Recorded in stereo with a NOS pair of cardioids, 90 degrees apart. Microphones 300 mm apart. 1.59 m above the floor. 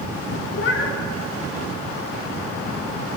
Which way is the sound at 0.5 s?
45° left.